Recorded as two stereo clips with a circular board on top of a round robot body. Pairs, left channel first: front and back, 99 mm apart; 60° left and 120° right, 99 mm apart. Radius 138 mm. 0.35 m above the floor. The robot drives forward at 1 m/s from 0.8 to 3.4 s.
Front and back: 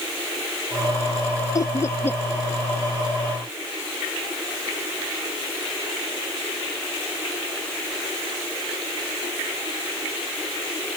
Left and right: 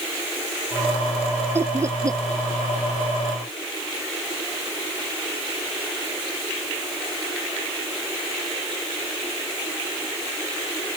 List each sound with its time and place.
1.6 s laughter: 55° right; by 2.2 s 70° right